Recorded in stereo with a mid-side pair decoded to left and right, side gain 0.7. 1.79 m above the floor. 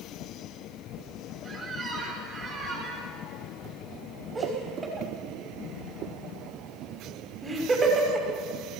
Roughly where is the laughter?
Ahead.